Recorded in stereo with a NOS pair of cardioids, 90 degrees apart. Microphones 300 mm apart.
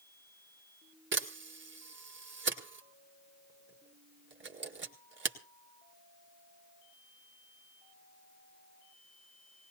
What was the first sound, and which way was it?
A camera shutter, 40° right.